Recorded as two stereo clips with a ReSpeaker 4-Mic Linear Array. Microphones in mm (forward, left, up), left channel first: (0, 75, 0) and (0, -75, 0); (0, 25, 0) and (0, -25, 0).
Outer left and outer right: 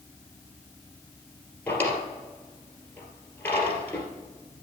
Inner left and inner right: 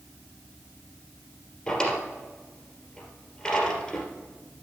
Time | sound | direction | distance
1.7 | a drawer | 10° left (ahead or behind) | 2.5 m